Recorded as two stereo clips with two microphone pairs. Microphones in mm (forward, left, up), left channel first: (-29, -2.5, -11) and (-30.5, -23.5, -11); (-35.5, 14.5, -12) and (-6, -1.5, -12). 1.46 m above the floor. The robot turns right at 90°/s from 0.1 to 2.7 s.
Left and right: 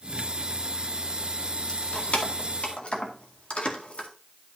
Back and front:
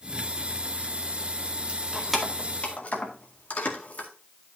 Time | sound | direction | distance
1.7 | keys jangling | 25° left | 1.9 m